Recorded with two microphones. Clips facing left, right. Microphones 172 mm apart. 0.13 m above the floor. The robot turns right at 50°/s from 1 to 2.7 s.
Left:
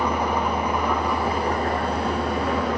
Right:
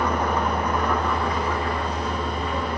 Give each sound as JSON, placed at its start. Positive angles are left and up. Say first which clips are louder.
{"t": 0.0, "sound": "an engine running", "louder": "even", "azimuth_deg": 10, "distance_m": 2.5}